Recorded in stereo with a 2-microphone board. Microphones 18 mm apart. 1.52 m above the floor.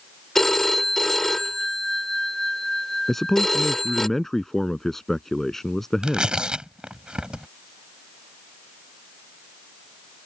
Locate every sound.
0.3 s a phone ringing: 20° left (ahead or behind)
3.1 s a man speaking: 20° left (ahead or behind)
6.0 s tearing paper: 60° right (ahead or behind)